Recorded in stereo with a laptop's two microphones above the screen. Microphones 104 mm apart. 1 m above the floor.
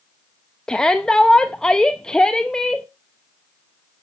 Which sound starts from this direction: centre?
A shout, at 0.7 s.